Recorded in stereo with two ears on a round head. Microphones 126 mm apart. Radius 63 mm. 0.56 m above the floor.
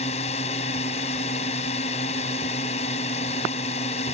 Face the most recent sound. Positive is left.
turn(degrees=45)  # may be behind; listen again after turning